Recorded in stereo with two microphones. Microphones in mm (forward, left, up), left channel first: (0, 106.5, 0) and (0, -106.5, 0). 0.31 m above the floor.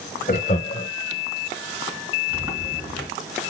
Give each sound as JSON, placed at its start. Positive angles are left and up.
{"t": 0.3, "sound": "laughter", "side_deg": 40, "distance_m": 1.0}
{"t": 2.3, "sound": "a sliding door", "side_deg": -20, "distance_m": 4.0}